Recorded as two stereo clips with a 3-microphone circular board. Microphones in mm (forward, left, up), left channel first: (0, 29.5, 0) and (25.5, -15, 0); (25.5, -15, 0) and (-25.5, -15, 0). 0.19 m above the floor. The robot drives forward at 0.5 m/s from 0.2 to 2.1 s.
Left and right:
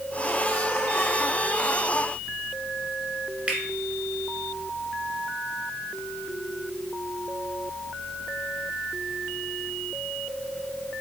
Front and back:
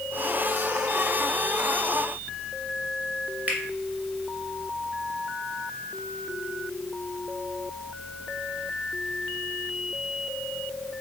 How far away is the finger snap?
About 1.5 m.